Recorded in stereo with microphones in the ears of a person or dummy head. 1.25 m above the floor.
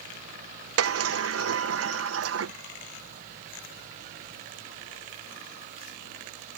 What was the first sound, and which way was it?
A sliding door, 80° right.